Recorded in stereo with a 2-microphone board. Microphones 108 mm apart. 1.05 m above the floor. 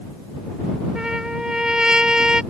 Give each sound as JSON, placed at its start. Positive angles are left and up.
{"t": 0.9, "sound": "a trumpet", "side_deg": -5}